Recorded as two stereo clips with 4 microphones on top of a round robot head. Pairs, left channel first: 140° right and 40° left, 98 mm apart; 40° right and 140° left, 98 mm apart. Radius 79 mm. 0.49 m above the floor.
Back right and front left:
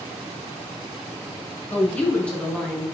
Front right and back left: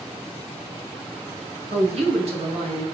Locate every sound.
1.7 s a woman speaking: 150° left, 5 m; by 2.9 s 135° left, 5.5 m